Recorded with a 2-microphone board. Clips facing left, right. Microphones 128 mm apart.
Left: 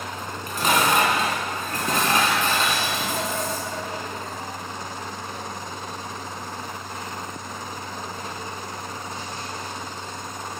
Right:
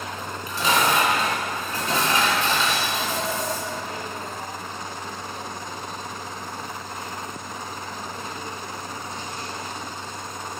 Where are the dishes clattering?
55° left (ahead or behind), 2.5 m.